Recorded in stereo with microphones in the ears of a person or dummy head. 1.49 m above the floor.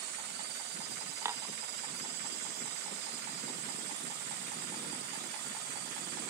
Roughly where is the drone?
Right.